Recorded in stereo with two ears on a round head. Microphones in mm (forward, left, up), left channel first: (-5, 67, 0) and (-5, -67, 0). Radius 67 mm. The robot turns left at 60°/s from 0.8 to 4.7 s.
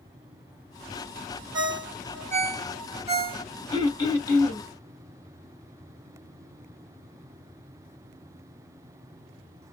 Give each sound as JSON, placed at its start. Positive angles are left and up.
{"t": 1.5, "sound": "a ringtone", "side_deg": -25, "distance_m": 1.1}
{"t": 3.7, "sound": "throat clearing", "side_deg": 25, "distance_m": 0.9}